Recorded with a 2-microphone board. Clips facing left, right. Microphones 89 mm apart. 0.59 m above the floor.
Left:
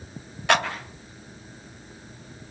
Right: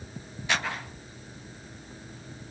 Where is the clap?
75° left (ahead or behind), 3 m.